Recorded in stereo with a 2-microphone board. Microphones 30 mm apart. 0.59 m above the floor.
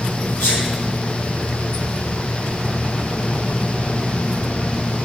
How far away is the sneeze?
About 4.5 m.